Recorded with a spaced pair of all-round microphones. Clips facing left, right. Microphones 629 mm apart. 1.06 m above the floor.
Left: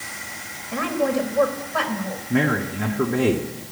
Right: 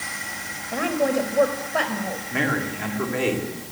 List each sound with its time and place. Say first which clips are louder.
0.7 s a woman speaking: even; 30° left (ahead or behind), 4.5 m
2.3 s a man speaking: left 6 dB; 60° left (ahead or behind), 3 m